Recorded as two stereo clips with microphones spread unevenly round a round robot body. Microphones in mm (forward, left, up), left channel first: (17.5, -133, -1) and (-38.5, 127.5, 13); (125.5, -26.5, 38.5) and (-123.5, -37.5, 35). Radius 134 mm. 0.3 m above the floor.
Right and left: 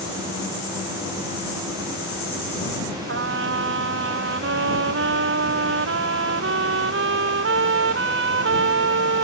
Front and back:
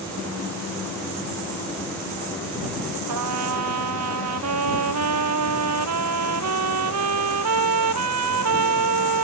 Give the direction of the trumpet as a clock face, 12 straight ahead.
7 o'clock.